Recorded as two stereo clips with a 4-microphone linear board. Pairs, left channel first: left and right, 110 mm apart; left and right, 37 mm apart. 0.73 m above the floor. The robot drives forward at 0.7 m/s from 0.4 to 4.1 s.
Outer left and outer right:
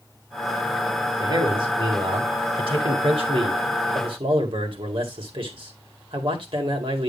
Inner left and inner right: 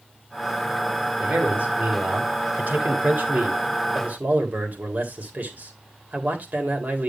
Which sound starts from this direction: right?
A man speaking, at 1.2 s.